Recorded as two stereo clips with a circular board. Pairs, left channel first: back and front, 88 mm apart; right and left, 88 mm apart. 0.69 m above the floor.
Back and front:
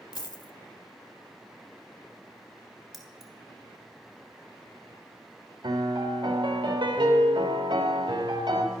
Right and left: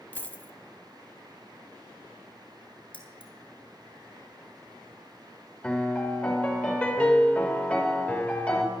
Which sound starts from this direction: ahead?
A piano, at 5.6 s.